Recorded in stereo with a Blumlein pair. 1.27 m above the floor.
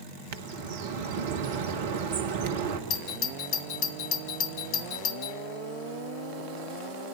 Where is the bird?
55° right, 1.4 m.